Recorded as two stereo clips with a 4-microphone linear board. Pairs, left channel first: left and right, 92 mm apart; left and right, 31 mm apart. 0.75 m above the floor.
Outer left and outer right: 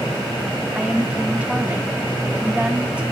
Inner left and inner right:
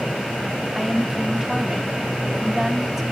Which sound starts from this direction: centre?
A woman speaking, at 0.8 s.